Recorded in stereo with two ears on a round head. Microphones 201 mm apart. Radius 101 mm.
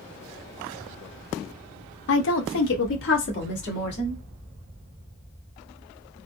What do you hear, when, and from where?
2.1 s a woman speaking: 55° left (ahead or behind), 0.7 m; by 4.2 s 50° left (ahead or behind), 2 m